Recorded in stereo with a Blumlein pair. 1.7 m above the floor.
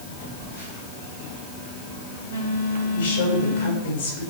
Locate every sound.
0.2 s a phone buzzing: 65° left, 7.5 m
2.9 s a woman speaking: 60° left, 7.5 m